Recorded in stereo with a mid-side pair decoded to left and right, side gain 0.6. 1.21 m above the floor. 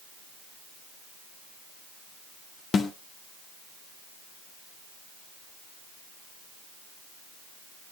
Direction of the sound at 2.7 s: 40° left.